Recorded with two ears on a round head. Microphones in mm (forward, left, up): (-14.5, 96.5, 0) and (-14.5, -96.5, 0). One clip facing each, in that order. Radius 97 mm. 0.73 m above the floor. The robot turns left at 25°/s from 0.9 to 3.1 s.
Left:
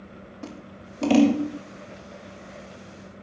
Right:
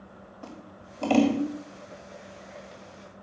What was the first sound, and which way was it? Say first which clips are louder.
Scissors: left 4 dB; 25° left (ahead or behind).